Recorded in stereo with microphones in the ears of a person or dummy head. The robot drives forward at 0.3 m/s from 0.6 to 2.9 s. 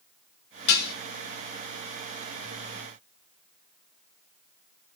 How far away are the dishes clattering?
About 0.6 m.